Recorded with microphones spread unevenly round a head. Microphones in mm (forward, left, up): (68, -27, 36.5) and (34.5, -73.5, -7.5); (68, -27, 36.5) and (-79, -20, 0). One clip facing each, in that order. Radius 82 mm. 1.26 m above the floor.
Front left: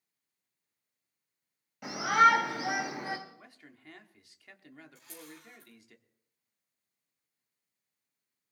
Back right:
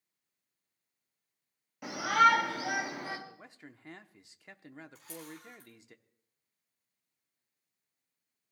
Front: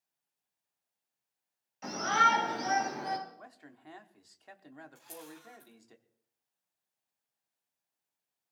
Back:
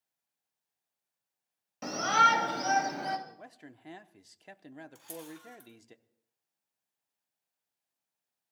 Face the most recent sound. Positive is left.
turn(degrees=-160)